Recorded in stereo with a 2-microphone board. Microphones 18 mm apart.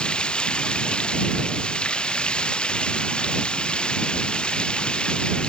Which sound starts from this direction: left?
Running water, at 0.0 s.